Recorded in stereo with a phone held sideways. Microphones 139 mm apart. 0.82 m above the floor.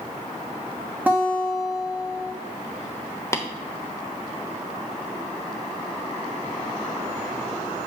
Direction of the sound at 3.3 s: 20° left (ahead or behind).